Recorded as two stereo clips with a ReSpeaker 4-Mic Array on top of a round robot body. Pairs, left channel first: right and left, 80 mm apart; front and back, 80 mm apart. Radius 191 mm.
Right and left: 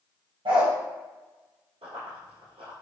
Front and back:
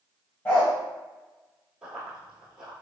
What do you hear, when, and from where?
0.5 s a dog barking: 65° left, 1.1 m
1.8 s running footsteps: 95° left, 1.3 m